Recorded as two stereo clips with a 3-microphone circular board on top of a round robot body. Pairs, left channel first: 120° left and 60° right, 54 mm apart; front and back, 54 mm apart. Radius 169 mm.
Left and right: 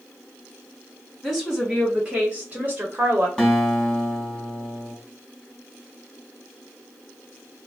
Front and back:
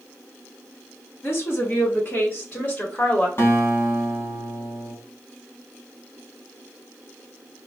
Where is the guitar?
40° left, 1.5 m.